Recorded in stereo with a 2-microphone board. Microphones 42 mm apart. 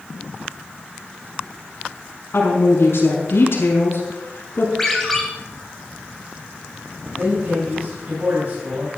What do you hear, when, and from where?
2.3 s a woman speaking: 65° left (ahead or behind), 6.5 m
4.8 s a ringtone: 5° left (ahead or behind), 3 m
7.2 s a man speaking: 50° right (ahead or behind), 5 m